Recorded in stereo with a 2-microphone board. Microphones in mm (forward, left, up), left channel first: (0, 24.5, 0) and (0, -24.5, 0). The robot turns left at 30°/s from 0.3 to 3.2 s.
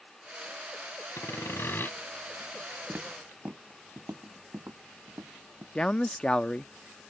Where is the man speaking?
20° left (ahead or behind).